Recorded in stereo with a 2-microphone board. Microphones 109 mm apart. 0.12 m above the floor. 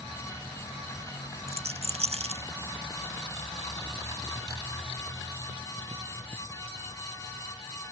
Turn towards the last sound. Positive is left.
turn(degrees=-70)  # may be behind; listen again after turning